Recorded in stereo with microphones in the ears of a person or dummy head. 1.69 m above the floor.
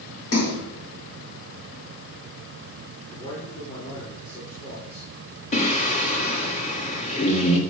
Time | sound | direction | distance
0.3 | a splash | 70° left (ahead or behind) | 6 m
3.1 | a man speaking | 30° left (ahead or behind) | 5.5 m
5.5 | singing | 30° left (ahead or behind) | 1.9 m